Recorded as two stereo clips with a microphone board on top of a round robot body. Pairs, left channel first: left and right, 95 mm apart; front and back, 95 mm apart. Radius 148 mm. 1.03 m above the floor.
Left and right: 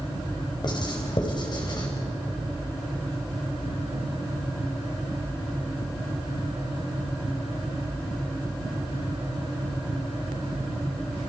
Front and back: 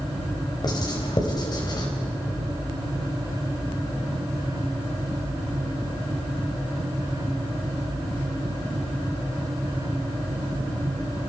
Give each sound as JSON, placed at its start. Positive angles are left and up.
{"t": 0.6, "sound": "writing", "azimuth_deg": 45, "distance_m": 4.0}